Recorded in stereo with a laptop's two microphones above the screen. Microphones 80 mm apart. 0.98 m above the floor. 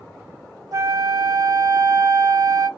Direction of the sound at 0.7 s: 50° right (ahead or behind).